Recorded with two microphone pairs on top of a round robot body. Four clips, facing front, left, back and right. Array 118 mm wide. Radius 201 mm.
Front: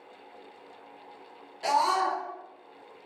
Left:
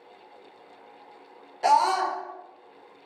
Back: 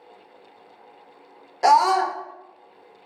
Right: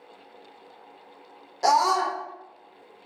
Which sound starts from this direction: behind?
A scream, at 1.6 s.